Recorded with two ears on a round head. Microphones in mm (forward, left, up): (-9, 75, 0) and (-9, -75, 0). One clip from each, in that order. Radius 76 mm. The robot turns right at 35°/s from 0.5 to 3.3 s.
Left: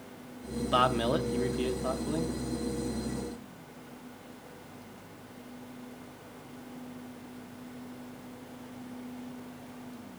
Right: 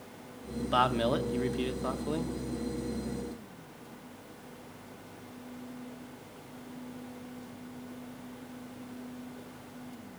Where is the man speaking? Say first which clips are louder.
Left 1 dB; 175° left, 0.8 m; by 2.3 s 130° right, 0.8 m.